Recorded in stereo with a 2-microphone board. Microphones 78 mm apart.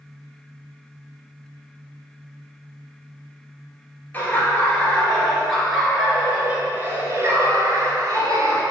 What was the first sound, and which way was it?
Laughter, 20° left (ahead or behind).